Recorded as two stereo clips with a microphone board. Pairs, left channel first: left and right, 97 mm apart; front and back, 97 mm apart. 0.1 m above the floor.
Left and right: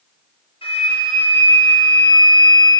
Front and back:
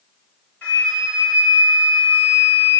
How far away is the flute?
About 2.5 m.